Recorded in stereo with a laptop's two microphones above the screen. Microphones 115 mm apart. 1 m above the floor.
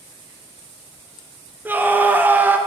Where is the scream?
15° right (ahead or behind), 0.6 m.